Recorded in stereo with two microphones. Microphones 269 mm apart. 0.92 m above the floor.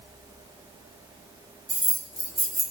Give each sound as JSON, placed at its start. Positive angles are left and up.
{"t": 1.7, "sound": "keys jangling", "side_deg": -15, "distance_m": 0.8}